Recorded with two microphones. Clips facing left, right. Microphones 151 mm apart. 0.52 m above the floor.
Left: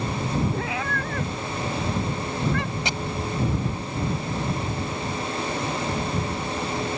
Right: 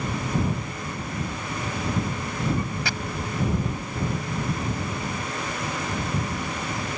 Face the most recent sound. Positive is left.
turn(degrees=20)  # may be behind; listen again after turning